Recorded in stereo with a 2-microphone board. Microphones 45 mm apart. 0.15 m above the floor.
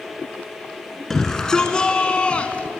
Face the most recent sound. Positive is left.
turn(degrees=30)  # may be behind; listen again after turning